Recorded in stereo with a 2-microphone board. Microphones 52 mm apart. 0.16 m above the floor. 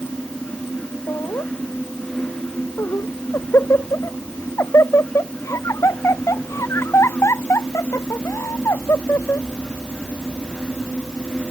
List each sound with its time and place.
1.1 s laughter: 75° left (ahead or behind); by 9.5 s 80° left